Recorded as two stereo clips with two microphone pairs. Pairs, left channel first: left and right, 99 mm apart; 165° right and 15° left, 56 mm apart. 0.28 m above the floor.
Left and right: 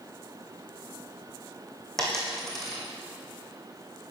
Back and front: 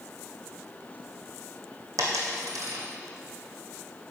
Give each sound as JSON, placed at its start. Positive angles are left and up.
{"t": 2.0, "sound": "a dropped coin", "azimuth_deg": 0, "distance_m": 2.5}